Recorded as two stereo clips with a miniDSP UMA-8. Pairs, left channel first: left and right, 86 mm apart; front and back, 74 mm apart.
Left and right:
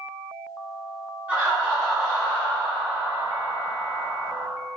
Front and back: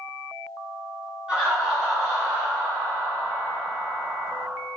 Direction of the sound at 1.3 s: 125° right.